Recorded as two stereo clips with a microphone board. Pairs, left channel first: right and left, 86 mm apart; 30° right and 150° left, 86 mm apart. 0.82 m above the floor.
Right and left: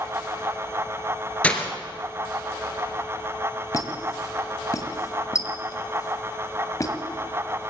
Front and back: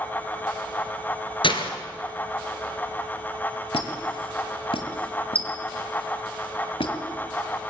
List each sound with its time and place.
1.4 s breaking glass: 15° right, 2.5 m
3.7 s a squeak: 40° right, 1.6 m